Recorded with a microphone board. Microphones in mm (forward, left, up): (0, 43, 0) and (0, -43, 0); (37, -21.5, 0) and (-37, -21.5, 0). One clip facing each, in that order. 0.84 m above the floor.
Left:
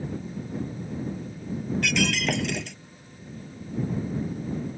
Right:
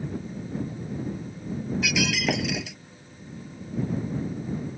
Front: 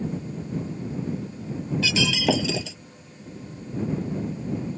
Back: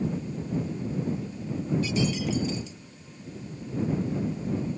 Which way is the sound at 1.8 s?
5° right.